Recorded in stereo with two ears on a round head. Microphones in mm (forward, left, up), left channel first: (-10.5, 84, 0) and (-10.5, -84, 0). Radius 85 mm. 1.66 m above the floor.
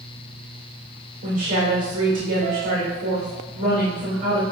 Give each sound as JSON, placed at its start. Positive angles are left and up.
{"t": 1.2, "sound": "a woman speaking", "side_deg": -90, "distance_m": 1.5}